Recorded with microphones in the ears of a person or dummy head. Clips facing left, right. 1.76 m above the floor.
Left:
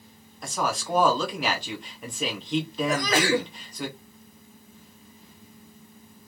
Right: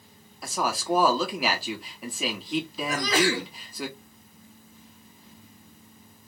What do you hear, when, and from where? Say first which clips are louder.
0.4 s a woman speaking: even; centre (ahead or behind), 1.3 m
2.9 s a sneeze: left 1 dB; 50° left (ahead or behind), 1.2 m